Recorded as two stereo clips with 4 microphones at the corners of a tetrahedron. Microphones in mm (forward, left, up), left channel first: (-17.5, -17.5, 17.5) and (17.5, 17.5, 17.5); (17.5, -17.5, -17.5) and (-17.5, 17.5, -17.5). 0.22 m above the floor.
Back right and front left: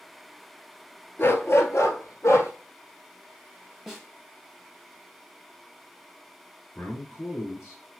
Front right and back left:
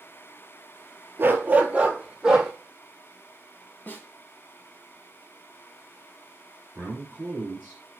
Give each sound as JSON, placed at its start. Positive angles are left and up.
{"t": 1.2, "sound": "a dog barking", "azimuth_deg": 180, "distance_m": 0.9}
{"t": 3.9, "sound": "a snare drum", "azimuth_deg": -35, "distance_m": 1.4}
{"t": 6.8, "sound": "a man speaking", "azimuth_deg": -170, "distance_m": 4.0}